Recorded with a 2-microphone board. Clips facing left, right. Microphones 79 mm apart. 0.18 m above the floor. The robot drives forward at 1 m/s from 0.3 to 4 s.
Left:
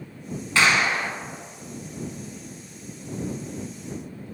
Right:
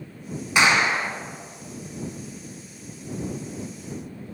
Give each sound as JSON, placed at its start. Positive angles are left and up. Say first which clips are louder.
{"t": 0.6, "sound": "a clap", "louder": "right 1 dB", "side_deg": -20, "distance_m": 1.5}